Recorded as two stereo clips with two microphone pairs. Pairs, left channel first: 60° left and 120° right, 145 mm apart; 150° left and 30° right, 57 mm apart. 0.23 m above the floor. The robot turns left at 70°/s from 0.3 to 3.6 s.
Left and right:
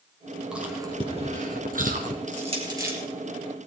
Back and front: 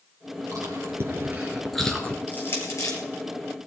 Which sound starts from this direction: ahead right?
Chewing, at 0.5 s.